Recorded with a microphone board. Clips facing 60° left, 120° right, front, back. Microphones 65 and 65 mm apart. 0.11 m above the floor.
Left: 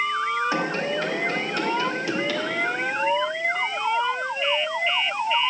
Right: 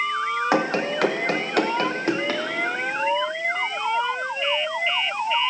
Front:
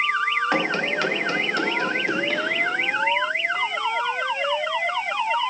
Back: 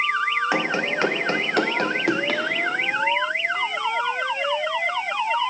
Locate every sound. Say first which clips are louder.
0.5 s running footsteps: right 3 dB, even; 95° right, 1.4 m; by 2.4 s 175° right, 2.0 m